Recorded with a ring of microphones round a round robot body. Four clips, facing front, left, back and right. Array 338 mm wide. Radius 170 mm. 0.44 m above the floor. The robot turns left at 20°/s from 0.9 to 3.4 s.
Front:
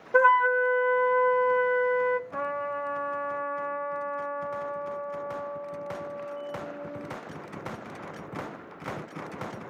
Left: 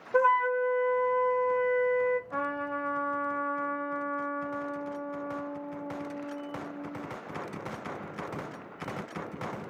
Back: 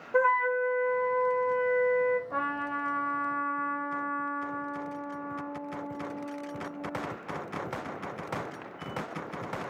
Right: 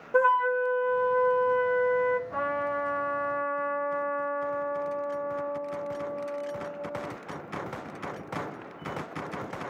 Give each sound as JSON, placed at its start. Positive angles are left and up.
{"t": 0.1, "sound": "a flute", "azimuth_deg": -5, "distance_m": 0.8}
{"t": 2.3, "sound": "a trumpet", "azimuth_deg": 175, "distance_m": 7.0}